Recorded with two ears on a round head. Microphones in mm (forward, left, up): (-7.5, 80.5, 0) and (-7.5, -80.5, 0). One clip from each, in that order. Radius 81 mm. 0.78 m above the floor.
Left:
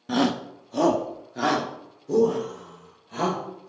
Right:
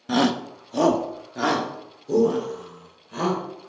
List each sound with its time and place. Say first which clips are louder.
0.1 s a shout: right 2 dB; 15° right (ahead or behind), 0.6 m; by 3.7 s 5° right (ahead or behind), 3 m